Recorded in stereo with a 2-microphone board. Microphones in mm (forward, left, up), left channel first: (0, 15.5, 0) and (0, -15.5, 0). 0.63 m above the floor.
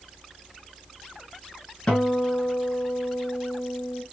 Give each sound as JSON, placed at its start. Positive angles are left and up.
{"t": 1.9, "sound": "a guitar", "side_deg": 25, "distance_m": 2.0}